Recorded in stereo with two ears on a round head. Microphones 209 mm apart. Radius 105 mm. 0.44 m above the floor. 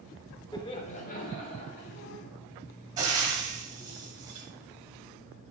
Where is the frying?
20° right (ahead or behind), 2 m.